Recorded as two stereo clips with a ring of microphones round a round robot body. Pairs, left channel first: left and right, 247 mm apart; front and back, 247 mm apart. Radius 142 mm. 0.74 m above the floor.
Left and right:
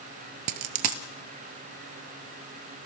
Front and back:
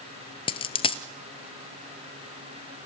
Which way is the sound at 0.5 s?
65° right.